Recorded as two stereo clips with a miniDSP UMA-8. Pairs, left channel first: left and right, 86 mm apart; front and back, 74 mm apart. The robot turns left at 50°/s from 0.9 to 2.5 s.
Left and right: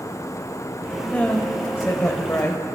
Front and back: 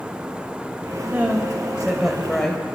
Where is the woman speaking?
150° left, 1.1 m; by 2.6 s 75° left, 1.1 m.